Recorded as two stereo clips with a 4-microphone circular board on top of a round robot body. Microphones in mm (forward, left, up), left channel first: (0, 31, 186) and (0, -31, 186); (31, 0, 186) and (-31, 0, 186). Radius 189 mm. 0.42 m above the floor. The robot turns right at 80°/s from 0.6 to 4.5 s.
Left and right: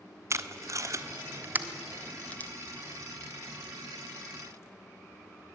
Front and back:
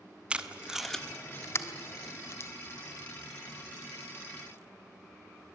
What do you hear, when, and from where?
0.3 s tape being pulled: 110° right, 1.6 m; by 2.5 s 40° left, 1.6 m